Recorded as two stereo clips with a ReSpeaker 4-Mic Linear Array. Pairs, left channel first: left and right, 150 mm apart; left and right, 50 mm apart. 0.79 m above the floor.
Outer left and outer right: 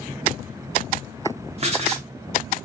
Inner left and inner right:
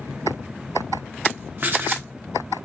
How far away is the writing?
About 1.9 m.